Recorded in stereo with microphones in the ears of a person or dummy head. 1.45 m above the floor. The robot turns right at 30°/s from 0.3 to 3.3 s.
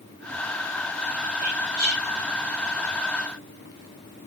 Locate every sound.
1.4 s whispering: 40° right (ahead or behind), 1.8 m; by 2.1 s 60° right (ahead or behind), 1.8 m